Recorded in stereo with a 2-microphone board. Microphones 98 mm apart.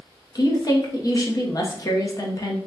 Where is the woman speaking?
40° left (ahead or behind), 0.8 m.